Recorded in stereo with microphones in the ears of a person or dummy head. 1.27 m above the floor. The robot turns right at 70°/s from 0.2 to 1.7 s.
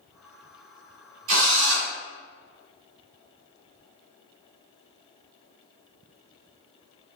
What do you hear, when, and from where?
1.3 s a drill: 60° right (ahead or behind), 1.0 m; by 1.9 s 50° right (ahead or behind), 1.0 m